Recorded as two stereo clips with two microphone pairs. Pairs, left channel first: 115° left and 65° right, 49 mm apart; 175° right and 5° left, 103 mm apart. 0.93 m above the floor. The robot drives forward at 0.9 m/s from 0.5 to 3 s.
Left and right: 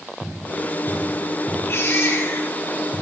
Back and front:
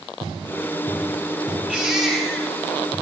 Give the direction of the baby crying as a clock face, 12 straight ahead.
9 o'clock.